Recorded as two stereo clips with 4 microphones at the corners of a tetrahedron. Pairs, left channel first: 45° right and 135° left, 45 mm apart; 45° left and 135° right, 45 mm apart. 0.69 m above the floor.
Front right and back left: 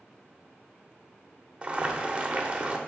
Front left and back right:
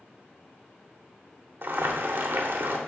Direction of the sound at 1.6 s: 160° right.